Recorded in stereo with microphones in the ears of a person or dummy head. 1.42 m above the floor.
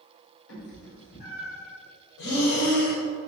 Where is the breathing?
60° left (ahead or behind), 1.9 m.